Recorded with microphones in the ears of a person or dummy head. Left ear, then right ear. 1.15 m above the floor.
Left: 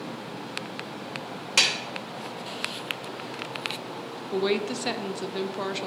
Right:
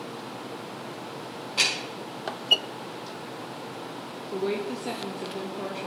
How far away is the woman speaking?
About 0.8 m.